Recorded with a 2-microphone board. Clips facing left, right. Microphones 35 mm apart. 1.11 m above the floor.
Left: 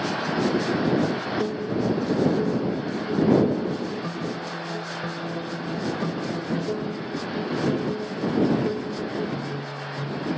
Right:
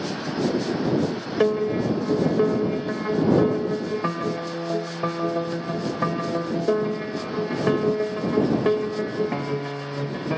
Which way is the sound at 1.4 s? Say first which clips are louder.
Right 9 dB; 50° right (ahead or behind).